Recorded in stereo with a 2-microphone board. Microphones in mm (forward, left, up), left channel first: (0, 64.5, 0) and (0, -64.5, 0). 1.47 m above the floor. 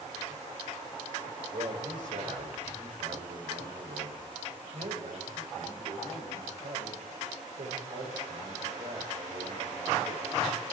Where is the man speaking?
85° right, 7.5 m.